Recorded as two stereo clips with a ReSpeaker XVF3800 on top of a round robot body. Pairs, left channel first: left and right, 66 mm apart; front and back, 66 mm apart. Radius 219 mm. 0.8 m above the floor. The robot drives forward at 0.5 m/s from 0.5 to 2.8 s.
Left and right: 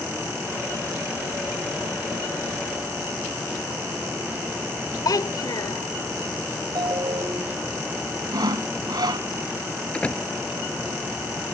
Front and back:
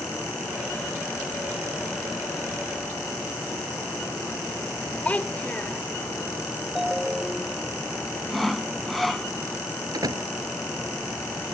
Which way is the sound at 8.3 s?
90° right.